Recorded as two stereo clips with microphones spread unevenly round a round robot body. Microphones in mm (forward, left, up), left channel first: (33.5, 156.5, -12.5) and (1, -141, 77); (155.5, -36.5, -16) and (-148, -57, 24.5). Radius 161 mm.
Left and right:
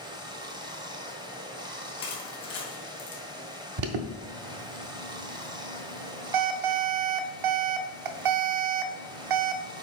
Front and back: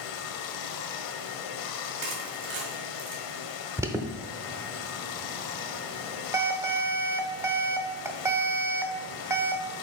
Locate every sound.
0.0 s running water: 15° right, 0.8 m
2.0 s crushing: 150° left, 2.0 m
3.8 s an alarm: 90° right, 0.8 m